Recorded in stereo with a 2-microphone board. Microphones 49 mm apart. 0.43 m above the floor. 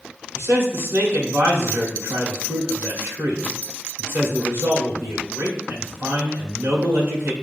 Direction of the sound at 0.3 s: 50° right (ahead or behind).